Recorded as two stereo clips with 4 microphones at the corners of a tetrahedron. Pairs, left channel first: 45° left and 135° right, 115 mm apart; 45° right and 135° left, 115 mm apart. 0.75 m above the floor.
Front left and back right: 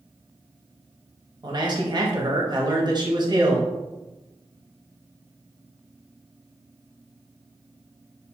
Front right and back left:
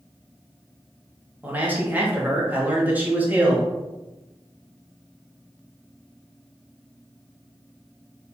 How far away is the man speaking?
About 0.8 m.